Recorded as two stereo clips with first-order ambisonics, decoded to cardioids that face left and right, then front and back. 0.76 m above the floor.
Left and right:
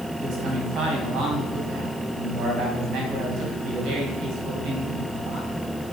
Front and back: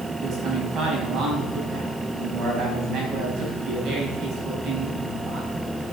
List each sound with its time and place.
0.2 s a man speaking: 130° right, 5.5 m